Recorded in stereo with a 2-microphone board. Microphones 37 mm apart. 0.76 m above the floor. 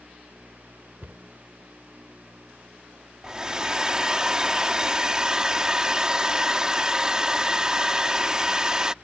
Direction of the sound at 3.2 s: 20° right (ahead or behind).